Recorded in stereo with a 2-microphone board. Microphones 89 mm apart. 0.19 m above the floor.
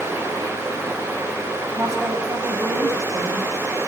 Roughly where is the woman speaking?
Right.